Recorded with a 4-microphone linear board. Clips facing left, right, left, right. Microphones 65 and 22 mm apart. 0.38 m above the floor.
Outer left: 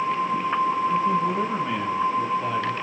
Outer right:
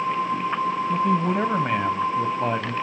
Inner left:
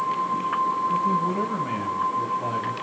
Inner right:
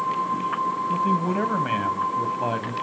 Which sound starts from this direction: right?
A man speaking, at 0.9 s.